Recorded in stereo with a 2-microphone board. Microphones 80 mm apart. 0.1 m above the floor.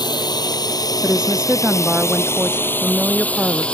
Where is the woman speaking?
10° right (ahead or behind).